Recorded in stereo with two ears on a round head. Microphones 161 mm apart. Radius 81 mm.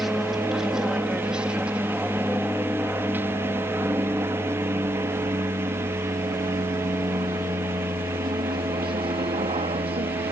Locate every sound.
0.0 s an aircraft: centre (ahead or behind); by 10.3 s 35° right (ahead or behind)